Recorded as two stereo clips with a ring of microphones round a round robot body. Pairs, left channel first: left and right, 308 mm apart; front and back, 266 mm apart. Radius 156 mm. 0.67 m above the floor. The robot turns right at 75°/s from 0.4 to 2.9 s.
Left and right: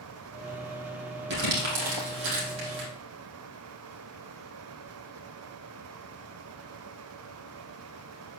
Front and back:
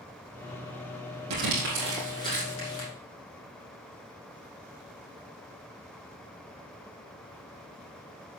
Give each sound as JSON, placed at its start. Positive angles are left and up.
{"t": 1.3, "sound": "crumpling", "azimuth_deg": -150, "distance_m": 4.5}